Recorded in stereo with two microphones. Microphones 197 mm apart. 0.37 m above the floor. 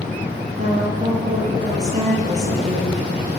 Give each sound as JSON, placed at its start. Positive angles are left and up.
{"t": 0.6, "sound": "a woman speaking", "side_deg": -35, "distance_m": 8.0}